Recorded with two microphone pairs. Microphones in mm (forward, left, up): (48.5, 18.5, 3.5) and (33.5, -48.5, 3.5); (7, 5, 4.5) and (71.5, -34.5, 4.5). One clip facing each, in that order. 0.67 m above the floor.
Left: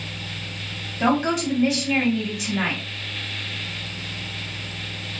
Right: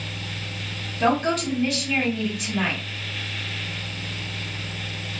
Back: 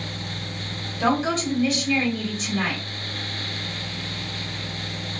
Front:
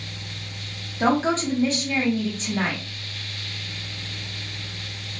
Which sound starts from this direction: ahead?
A woman speaking, at 1.0 s.